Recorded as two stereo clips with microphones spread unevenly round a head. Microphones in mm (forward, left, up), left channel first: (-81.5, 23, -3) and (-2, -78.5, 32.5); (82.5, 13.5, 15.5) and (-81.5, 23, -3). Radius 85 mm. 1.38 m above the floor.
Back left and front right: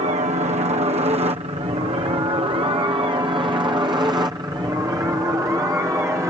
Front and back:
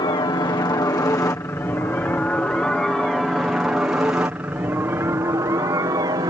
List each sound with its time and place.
0.0 s a helicopter: 55° right; by 6.3 s 130° right